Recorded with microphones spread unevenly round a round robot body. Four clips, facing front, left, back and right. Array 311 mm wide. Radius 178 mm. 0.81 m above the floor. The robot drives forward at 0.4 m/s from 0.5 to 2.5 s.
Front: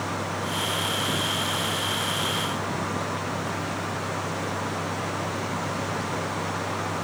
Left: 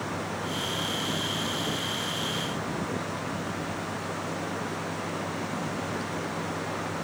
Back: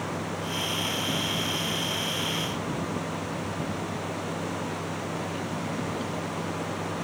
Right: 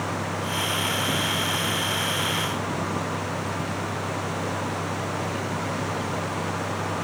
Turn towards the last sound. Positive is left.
No sound to turn to.